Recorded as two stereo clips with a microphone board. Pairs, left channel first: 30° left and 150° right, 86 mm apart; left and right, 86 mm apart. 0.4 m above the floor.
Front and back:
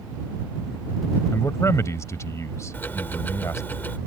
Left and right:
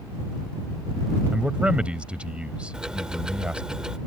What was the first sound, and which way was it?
A man speaking, 15° right.